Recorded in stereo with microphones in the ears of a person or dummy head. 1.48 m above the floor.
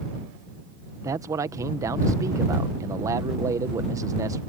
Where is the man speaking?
15° right (ahead or behind).